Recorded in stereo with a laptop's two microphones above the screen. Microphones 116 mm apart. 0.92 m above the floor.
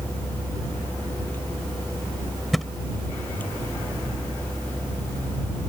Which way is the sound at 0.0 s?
15° left (ahead or behind).